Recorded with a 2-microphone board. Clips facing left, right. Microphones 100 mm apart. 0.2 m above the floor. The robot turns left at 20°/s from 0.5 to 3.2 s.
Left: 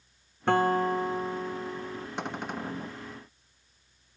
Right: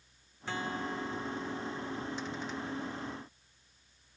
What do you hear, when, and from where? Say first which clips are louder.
0.5 s a guitar: left 13 dB; 55° left; by 2.1 s 25° left
2.2 s a cupboard door: left 4 dB; 60° left (ahead or behind); by 3.0 s 45° left (ahead or behind)